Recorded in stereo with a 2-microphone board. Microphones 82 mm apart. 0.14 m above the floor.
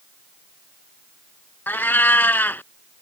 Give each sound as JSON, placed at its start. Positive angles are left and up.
{"t": 1.7, "sound": "a cat meowing", "side_deg": 25}